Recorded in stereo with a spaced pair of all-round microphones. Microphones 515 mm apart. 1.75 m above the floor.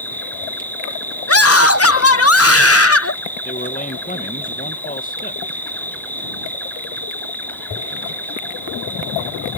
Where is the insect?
5° left (ahead or behind).